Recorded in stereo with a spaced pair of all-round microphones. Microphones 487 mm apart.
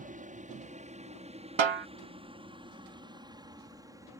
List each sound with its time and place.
0.0 s a helicopter: 15° right (ahead or behind); by 4.2 s 5° right (ahead or behind)
1.6 s a snare drum: 65° right (ahead or behind)